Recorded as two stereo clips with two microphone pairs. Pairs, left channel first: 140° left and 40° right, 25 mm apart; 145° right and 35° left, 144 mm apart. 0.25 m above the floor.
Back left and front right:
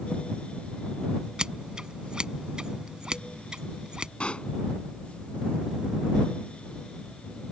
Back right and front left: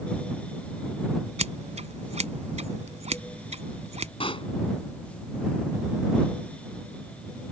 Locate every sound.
1.4 s scissors: 10° left
4.2 s a pop: 175° left